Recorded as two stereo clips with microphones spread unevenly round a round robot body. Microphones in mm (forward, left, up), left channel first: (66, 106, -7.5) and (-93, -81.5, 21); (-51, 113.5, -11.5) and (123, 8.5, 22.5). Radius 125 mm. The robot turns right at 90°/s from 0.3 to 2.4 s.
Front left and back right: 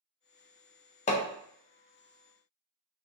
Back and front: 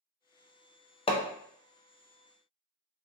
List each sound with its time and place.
1.1 s hammering: 100° left, 0.5 m; by 1.2 s 115° left, 0.5 m